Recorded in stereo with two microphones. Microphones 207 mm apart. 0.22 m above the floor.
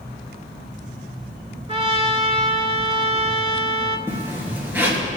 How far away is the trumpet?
About 0.9 m.